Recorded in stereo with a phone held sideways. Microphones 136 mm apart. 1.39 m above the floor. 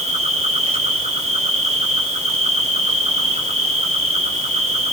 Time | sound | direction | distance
0.0 | an insect | 50° right (ahead or behind) | 4.5 m